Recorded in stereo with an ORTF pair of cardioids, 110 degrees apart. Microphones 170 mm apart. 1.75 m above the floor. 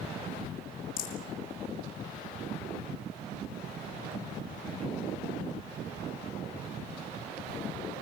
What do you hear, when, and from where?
1.0 s a rattle: 60° left, 4.5 m